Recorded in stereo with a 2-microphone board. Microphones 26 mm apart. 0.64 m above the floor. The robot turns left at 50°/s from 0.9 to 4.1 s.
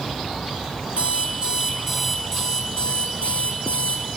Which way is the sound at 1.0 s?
120° right.